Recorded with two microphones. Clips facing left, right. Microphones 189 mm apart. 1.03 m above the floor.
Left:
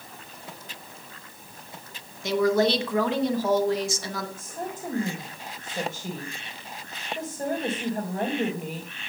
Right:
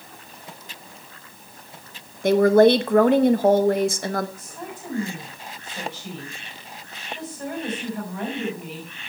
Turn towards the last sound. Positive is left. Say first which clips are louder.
# left 2 dB
turn(degrees=40)  # may be behind; listen again after turning